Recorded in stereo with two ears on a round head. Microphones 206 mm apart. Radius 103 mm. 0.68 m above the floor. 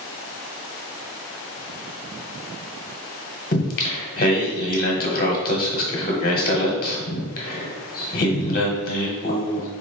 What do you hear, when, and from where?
3.5 s singing: 40° left (ahead or behind), 1.0 m